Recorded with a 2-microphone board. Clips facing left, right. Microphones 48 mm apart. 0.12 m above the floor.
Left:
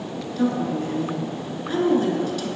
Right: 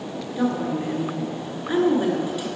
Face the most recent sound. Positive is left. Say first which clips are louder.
# left 1 dB
turn(degrees=-20)  # may be behind; listen again after turning